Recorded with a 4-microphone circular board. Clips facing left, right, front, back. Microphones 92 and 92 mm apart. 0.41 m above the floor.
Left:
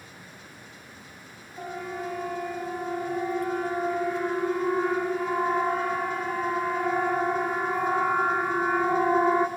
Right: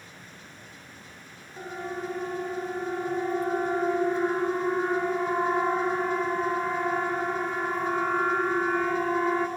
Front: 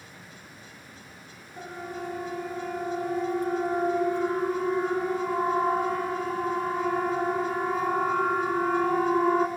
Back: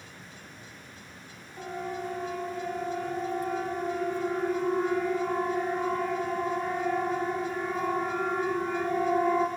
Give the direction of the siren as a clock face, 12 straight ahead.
1 o'clock.